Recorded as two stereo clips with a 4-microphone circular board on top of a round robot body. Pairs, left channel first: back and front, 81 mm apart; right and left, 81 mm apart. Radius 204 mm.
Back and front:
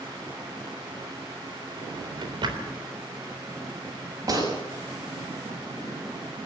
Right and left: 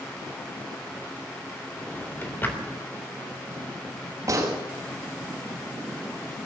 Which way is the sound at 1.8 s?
25° right.